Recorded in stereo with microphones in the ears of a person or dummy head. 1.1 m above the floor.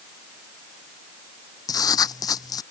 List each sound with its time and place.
1.7 s writing: 20° left (ahead or behind)